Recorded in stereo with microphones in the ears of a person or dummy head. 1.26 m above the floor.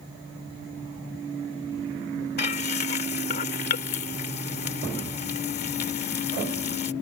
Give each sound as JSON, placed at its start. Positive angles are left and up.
{"t": 2.4, "sound": "frying", "side_deg": 45}